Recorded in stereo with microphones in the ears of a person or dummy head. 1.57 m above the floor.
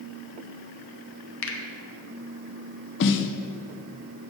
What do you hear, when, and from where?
1.4 s a finger snap: 80° left, 1.2 m
3.0 s a snare drum: 60° left (ahead or behind), 0.6 m